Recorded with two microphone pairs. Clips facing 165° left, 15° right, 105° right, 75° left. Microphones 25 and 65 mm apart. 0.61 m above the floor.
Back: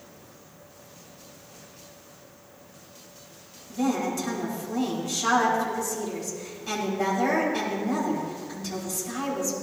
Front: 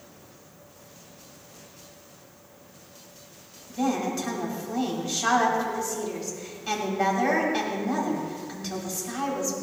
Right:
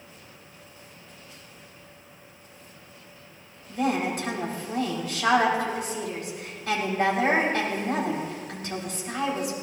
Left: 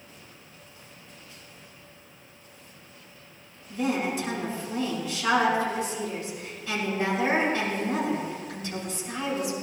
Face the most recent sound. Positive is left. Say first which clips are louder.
# even, right 1 dB
turn(degrees=-80)